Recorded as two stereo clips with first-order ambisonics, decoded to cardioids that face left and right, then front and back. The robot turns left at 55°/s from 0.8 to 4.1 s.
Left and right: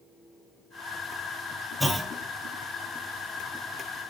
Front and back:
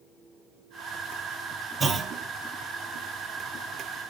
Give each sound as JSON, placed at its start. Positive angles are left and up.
{"t": 1.8, "sound": "a clunk", "azimuth_deg": -175, "distance_m": 1.1}